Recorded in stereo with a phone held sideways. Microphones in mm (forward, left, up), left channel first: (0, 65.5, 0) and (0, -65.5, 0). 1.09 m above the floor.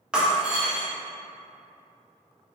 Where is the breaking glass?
5° right (ahead or behind), 0.6 m.